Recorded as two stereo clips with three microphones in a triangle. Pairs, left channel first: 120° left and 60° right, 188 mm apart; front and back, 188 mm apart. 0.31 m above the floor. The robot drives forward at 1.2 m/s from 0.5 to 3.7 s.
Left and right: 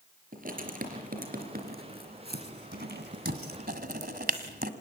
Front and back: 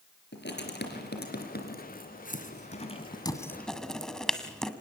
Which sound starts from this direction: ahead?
Writing, at 0.3 s.